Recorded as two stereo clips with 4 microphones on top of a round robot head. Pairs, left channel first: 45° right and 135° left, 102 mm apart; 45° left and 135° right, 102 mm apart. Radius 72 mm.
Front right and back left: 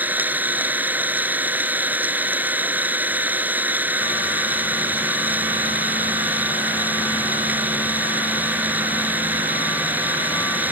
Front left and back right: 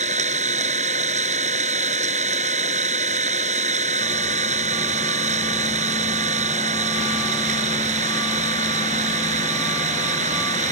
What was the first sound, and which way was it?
An engine running, 150° right.